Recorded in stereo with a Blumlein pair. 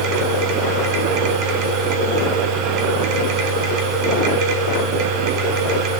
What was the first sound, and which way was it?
A machine running, 40° right.